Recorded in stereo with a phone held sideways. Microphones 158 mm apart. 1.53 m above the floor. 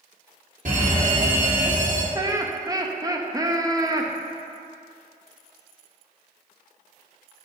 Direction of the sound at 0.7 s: 55° right (ahead or behind).